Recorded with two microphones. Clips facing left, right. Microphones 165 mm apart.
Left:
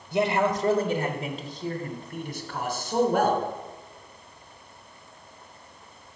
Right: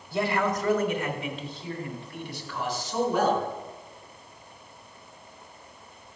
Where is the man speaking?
20° left (ahead or behind), 1.3 m; by 3.4 s 55° left (ahead or behind), 3 m.